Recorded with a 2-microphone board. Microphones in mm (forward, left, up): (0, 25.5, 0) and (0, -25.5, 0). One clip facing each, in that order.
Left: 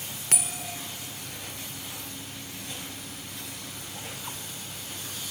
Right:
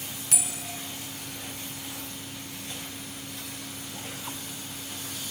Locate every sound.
0.3 s a bell: 50° left (ahead or behind), 1.6 m